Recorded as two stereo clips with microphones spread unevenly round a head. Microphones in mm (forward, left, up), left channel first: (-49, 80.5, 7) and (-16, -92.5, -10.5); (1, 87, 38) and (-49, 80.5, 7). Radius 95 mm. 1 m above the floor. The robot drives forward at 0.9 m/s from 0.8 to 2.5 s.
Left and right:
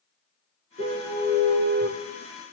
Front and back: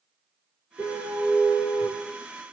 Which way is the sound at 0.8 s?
30° right.